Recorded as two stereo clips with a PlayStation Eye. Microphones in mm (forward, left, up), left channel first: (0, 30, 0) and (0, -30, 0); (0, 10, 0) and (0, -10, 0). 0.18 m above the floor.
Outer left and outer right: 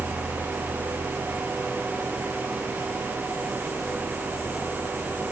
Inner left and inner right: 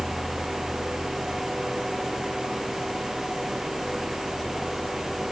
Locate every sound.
Only background noise.